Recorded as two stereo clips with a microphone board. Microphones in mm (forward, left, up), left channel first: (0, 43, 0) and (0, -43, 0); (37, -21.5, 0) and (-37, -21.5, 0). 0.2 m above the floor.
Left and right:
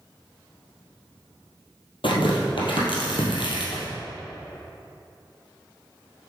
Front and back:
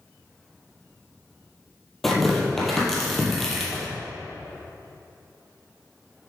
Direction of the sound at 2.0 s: 90° left.